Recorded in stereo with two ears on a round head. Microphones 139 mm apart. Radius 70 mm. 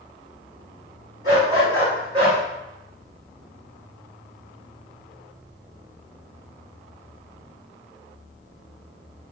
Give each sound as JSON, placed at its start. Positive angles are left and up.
{"t": 1.2, "sound": "a dog barking", "side_deg": -30, "distance_m": 1.7}